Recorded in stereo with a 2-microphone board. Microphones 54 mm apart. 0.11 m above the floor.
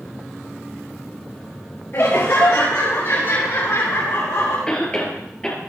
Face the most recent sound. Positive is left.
turn(degrees=15)  # may be behind; listen again after turning